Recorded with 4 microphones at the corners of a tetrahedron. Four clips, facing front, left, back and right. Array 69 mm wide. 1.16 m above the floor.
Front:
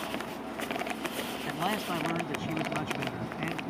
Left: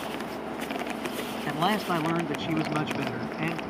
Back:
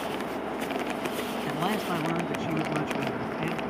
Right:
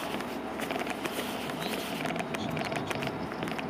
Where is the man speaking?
95° left.